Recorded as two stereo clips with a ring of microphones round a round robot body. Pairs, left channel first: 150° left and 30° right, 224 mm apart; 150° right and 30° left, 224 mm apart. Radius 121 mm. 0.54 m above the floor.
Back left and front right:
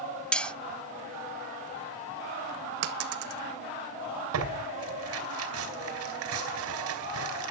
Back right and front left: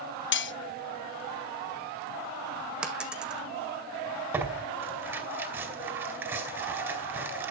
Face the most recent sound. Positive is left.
turn(degrees=-50)